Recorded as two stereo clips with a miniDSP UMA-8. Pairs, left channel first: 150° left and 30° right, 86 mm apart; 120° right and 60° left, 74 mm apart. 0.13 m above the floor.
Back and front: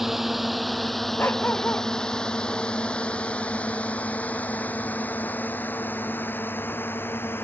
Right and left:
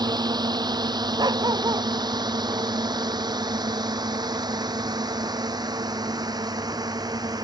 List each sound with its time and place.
0.0 s a drone: 55° left; by 7.5 s 85° left
1.2 s a dog barking: 80° left